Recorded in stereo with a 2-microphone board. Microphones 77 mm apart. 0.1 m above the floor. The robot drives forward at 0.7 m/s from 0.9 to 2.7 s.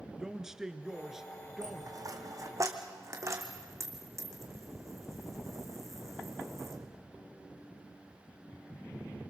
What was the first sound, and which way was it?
A man speaking, 5° right (ahead or behind).